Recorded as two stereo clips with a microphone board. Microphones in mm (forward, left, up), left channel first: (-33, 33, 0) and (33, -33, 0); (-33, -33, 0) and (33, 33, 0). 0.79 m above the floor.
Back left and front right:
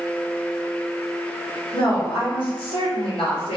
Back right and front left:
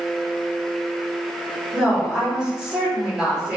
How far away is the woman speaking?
About 1.2 m.